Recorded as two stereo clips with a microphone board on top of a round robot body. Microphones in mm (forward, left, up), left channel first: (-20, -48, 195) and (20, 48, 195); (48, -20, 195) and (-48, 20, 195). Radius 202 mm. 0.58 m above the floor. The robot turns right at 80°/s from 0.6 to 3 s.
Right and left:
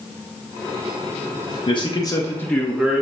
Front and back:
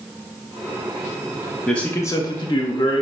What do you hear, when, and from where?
1.7 s a man speaking: 105° right, 0.8 m; by 3.0 s straight ahead, 0.8 m